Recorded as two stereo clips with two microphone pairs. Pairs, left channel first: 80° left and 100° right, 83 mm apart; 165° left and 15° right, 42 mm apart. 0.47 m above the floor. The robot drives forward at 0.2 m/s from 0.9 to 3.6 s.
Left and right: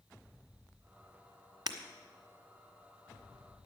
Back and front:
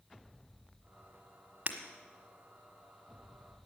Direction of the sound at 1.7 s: 70° right.